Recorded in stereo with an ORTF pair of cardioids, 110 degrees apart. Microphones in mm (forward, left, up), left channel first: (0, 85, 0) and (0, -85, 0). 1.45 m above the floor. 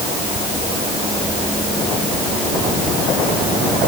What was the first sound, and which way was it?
Only background noise.